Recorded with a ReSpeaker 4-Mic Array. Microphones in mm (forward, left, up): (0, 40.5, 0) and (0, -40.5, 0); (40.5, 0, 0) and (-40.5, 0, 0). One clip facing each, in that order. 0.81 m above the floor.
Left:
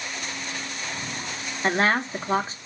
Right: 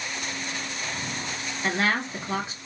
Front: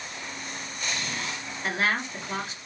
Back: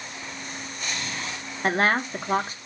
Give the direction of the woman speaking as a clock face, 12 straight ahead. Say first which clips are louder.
Left 4 dB, back 5 dB; 7 o'clock.